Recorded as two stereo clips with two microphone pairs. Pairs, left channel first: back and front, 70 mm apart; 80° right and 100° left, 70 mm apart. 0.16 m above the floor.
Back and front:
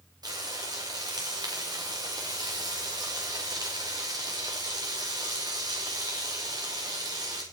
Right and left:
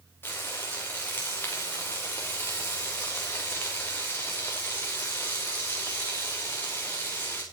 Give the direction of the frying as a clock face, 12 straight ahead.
1 o'clock.